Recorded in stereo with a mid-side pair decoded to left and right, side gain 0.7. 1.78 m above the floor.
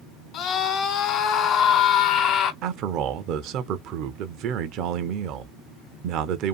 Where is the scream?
60° left, 1.2 m.